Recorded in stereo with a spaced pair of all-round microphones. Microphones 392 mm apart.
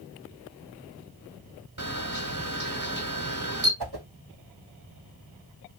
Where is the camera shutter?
50° right (ahead or behind), 2.5 m.